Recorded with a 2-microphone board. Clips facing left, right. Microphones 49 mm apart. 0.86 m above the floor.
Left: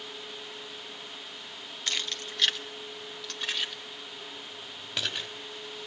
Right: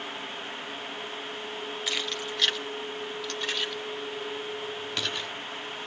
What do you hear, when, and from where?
1.9 s keys jangling: 5° right (ahead or behind), 0.9 m; by 5.3 s 10° left (ahead or behind), 3.5 m